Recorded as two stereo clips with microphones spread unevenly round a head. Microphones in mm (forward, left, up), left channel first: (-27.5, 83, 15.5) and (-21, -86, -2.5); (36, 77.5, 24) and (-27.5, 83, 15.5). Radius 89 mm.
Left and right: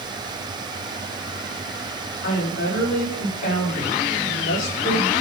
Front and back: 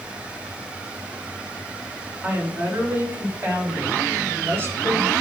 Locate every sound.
2.2 s a woman speaking: 110° left, 5 m; by 5.1 s 120° left, 6 m